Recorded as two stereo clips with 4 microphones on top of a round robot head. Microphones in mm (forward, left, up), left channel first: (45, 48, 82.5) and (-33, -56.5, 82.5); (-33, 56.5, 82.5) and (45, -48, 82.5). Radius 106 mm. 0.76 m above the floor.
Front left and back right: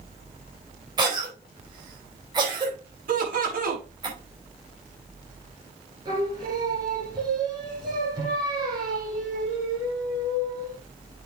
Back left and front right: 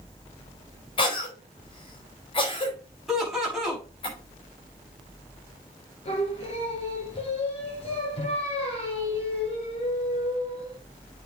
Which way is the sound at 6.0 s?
170° left.